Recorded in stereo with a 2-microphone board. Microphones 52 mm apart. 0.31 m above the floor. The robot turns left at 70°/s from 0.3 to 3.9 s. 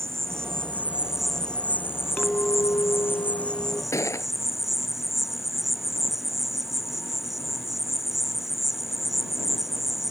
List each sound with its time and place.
0.0 s an insect: 110° right; by 10.1 s 5° right
2.2 s a clink: 155° left; by 3.8 s 40° left
3.9 s a gunshot: 85° left